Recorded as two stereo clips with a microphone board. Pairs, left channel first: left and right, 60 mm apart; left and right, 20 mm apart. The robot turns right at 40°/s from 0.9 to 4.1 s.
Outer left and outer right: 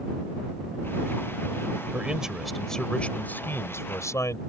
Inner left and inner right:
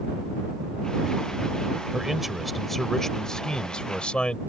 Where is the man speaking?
20° right; by 4.4 s 65° left.